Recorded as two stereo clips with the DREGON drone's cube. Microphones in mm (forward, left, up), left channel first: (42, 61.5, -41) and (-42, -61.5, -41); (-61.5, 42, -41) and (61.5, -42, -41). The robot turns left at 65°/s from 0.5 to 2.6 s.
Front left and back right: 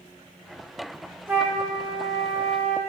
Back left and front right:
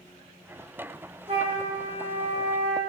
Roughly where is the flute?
Ahead right.